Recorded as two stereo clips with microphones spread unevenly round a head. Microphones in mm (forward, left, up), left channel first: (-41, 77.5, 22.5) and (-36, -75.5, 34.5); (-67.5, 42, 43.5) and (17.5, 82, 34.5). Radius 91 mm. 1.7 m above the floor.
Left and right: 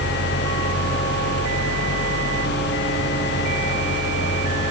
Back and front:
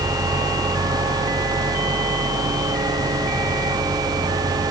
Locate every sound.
Only background noise.